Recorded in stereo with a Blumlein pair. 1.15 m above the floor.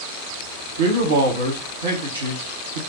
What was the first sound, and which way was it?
A man speaking, 65° right.